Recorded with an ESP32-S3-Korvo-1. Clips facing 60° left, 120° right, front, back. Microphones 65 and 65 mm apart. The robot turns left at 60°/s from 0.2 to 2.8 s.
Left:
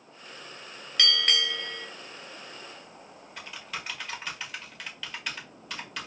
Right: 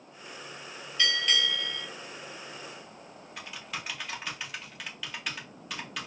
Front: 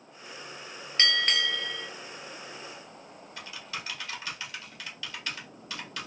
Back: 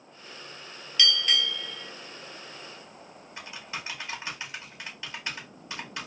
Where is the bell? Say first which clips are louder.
Left 1 dB, even; 50° left, 0.5 m; by 1.9 s 5° right, 0.5 m.